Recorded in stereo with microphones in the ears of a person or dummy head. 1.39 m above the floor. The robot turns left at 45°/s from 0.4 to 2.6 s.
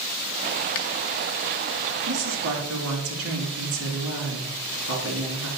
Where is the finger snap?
45° left (ahead or behind), 0.7 m.